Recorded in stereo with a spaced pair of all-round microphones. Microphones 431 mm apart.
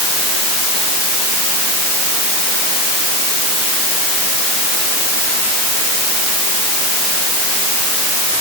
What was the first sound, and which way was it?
Only background noise.